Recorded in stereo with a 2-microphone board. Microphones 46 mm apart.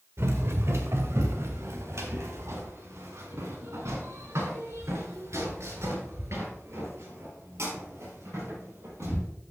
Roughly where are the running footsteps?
Right.